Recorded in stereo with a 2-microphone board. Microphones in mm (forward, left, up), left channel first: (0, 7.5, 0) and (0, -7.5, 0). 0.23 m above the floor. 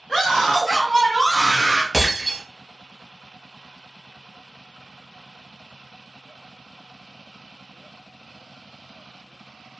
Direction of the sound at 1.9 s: Centre (ahead or behind).